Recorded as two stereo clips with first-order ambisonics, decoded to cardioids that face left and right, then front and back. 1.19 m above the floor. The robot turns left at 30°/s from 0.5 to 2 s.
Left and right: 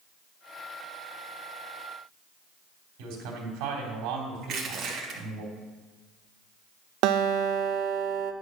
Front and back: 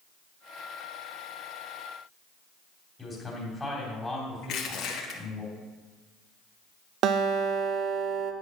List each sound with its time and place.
3.0 s a man speaking: 85° right, 2.5 m
4.4 s crushing: 45° right, 1.5 m
7.0 s a guitar: 130° right, 0.6 m